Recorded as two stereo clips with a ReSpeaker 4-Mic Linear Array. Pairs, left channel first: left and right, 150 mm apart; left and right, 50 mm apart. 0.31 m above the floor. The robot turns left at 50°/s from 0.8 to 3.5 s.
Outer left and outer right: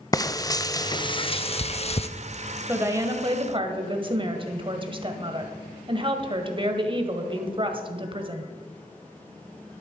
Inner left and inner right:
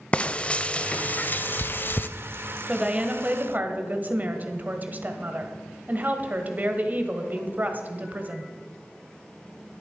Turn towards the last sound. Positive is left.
turn(degrees=-65)